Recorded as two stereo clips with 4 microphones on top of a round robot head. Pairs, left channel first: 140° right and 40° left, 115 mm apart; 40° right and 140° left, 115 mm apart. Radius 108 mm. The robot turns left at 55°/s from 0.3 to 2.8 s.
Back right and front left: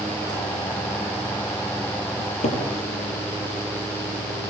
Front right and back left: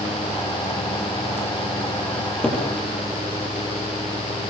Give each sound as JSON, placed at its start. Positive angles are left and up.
{"t": 2.2, "sound": "a cupboard door", "azimuth_deg": -105, "distance_m": 9.0}